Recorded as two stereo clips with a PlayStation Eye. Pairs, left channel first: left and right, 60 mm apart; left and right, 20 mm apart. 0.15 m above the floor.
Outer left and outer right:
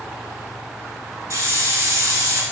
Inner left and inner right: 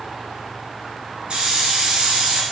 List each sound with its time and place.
1.3 s a hiss: 60° right (ahead or behind), 0.8 m